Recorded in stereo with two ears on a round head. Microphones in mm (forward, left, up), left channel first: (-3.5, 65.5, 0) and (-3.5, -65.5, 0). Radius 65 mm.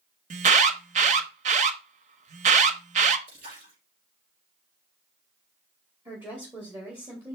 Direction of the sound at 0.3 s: 50° right (ahead or behind).